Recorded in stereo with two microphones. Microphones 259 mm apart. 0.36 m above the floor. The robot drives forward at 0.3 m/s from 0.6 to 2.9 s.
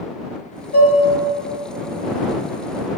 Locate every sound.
0.7 s dishes clattering: 60° left (ahead or behind), 1.4 m; by 1.0 s 55° left (ahead or behind), 1.4 m